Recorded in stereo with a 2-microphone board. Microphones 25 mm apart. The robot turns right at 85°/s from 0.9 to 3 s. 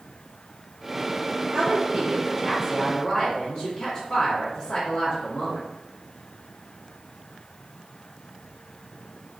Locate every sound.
1.5 s a woman speaking: 90° right, 1.0 m; by 5.7 s 35° left, 1.0 m